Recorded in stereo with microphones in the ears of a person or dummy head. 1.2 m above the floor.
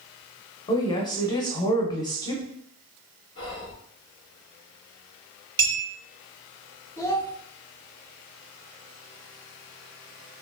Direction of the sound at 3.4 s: 30° left (ahead or behind).